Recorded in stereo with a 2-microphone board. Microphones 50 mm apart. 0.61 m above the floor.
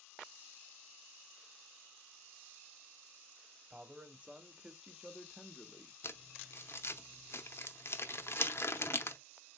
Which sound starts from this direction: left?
Crumpling, at 6.0 s.